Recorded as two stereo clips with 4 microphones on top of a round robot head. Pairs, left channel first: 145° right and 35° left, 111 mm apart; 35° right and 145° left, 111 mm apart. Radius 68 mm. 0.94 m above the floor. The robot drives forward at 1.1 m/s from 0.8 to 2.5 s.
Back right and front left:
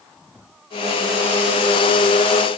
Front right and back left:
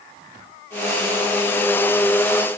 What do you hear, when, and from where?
Only background noise.